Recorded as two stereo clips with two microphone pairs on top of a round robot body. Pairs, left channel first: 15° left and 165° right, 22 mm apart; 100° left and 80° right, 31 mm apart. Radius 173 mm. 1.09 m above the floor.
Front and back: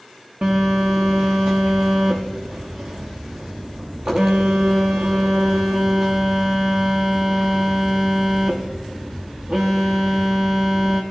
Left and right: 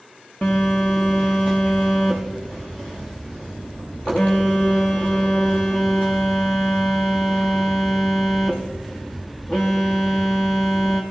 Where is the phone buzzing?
170° left, 0.6 m.